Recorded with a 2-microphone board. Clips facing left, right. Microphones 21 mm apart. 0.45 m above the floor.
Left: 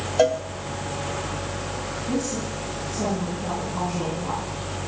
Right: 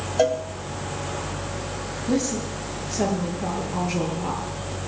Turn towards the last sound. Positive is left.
turn(degrees=-60)  # may be behind; listen again after turning